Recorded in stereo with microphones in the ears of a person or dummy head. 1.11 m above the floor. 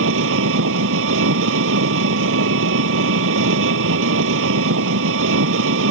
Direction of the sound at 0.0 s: 75° right (ahead or behind).